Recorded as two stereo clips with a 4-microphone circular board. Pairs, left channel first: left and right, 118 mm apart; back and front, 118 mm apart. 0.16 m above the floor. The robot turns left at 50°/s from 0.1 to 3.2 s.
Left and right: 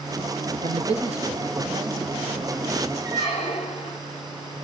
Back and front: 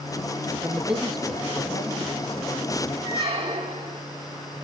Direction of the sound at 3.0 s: 65° left.